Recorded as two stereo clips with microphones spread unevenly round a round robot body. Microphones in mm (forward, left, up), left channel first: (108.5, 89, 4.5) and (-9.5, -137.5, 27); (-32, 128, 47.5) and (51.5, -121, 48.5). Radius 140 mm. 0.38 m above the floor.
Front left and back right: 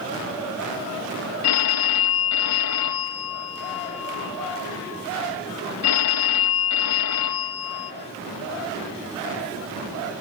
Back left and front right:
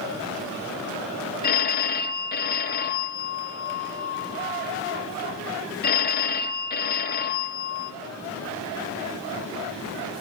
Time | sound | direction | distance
1.4 | a phone ringing | 55° left | 1.1 m